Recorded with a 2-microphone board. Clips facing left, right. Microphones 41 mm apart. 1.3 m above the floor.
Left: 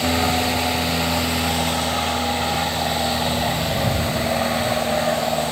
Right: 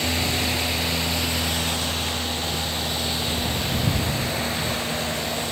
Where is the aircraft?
50° left (ahead or behind).